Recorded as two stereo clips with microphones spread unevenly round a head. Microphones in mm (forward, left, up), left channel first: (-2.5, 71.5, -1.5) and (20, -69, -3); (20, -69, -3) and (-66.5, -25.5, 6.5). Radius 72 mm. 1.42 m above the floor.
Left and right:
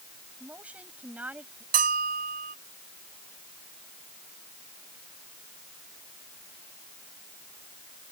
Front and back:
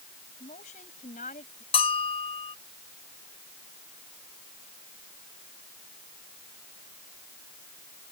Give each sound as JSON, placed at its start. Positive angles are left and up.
{"t": 0.4, "sound": "a woman speaking", "azimuth_deg": 0}
{"t": 1.7, "sound": "a bell", "azimuth_deg": -50}